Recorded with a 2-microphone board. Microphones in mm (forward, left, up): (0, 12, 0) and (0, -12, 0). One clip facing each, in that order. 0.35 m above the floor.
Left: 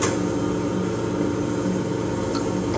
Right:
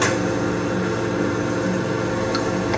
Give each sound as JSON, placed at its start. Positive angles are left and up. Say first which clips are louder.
{"t": 0.0, "sound": "running water", "louder": "right 2 dB", "side_deg": -65, "distance_m": 1.7}